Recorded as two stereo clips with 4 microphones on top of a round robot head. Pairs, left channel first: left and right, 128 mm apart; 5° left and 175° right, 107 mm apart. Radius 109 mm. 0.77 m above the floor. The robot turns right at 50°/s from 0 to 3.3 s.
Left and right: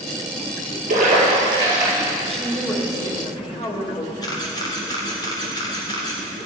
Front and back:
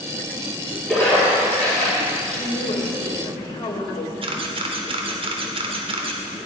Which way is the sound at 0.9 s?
75° right.